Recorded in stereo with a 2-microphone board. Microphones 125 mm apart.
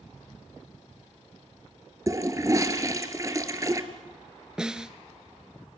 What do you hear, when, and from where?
2.1 s a toilet flushing: 25° right (ahead or behind), 1.4 m
4.6 s a snare drum: 5° right (ahead or behind), 0.8 m